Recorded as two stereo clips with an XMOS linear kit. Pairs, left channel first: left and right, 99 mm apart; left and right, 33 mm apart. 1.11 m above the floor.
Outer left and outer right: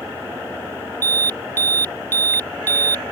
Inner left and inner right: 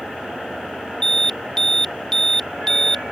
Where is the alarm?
20° left (ahead or behind).